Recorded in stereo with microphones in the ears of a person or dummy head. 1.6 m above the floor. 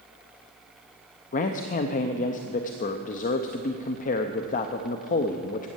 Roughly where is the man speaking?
Left.